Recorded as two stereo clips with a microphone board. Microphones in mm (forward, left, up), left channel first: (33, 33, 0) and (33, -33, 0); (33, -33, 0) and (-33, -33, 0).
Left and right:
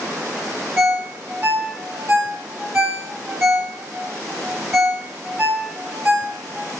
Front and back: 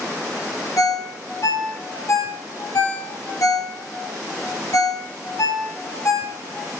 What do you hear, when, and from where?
0.8 s a ringtone: 30° right, 1.8 m